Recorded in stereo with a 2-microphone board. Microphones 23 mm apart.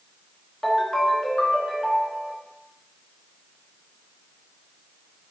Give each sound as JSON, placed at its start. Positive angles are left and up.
{"t": 0.6, "sound": "a ringtone", "side_deg": 15, "distance_m": 1.4}